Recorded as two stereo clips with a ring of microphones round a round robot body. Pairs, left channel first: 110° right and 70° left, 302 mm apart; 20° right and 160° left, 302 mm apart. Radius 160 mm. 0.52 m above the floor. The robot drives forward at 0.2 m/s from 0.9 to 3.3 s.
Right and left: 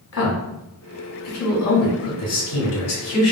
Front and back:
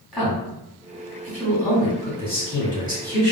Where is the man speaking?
110° right, 1.5 m; by 3.3 s 130° right, 1.7 m.